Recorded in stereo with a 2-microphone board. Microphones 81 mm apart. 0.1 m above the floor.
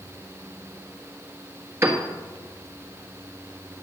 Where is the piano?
35° right (ahead or behind), 1.5 m.